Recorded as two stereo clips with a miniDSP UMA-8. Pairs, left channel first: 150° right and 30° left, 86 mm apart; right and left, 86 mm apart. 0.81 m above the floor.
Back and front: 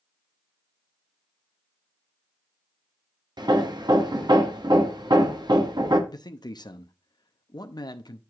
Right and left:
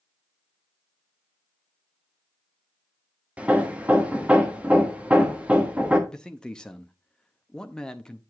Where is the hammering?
20° left, 1.2 m.